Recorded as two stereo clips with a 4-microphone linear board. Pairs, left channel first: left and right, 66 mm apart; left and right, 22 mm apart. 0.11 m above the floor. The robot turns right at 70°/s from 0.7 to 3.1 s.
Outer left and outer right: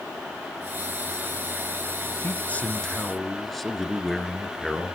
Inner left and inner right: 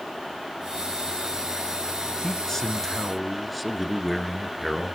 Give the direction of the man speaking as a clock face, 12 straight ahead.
8 o'clock.